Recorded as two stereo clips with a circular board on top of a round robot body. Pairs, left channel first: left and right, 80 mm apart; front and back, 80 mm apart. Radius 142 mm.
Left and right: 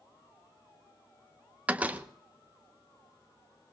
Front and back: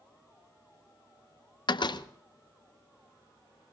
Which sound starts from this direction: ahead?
A door slam, at 1.7 s.